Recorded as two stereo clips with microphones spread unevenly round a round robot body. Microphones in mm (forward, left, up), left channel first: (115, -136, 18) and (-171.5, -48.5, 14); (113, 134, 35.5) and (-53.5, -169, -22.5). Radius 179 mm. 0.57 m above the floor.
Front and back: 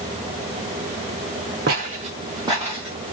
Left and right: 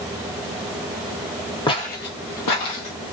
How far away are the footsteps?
About 0.7 m.